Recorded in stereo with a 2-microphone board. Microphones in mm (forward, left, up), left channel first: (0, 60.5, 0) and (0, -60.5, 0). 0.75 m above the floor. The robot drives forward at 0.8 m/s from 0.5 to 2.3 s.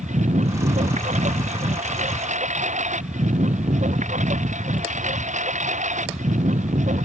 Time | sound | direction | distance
0.0 | a lawn mower | 80° right | ?